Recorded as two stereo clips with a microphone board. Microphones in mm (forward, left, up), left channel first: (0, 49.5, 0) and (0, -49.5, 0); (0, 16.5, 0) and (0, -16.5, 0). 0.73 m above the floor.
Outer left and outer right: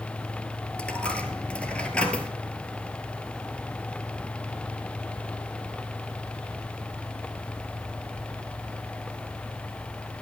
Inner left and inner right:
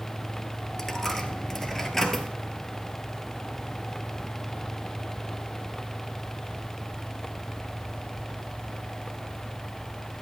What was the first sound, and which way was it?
A dropped coin, 10° left (ahead or behind).